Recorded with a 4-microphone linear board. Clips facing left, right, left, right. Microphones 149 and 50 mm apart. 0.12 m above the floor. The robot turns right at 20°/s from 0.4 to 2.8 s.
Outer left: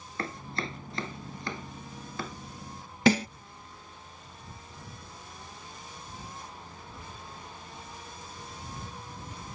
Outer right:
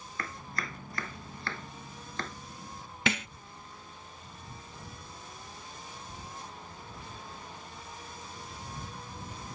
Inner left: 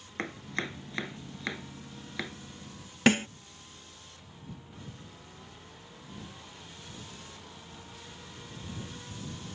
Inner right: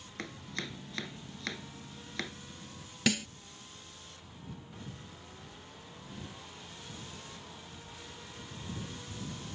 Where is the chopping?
30° left (ahead or behind); by 2.4 s 5° left (ahead or behind).